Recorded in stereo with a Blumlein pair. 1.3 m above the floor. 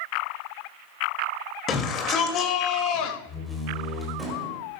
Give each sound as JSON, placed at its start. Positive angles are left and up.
{"t": 1.7, "sound": "a shout", "azimuth_deg": 25, "distance_m": 3.0}
{"t": 3.3, "sound": "a door slam", "azimuth_deg": 0, "distance_m": 4.5}